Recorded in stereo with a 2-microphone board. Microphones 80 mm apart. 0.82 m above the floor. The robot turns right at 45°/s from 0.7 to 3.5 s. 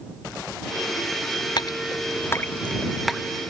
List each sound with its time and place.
1.6 s dripping: 60° left (ahead or behind); by 3.2 s 5° right (ahead or behind)